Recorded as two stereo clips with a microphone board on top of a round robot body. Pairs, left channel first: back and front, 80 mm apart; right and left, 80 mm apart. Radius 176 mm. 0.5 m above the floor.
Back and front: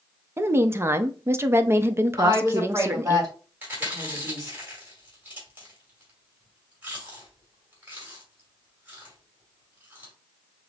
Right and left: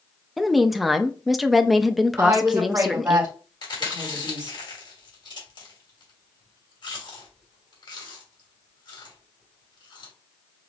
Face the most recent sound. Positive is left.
turn(degrees=-70)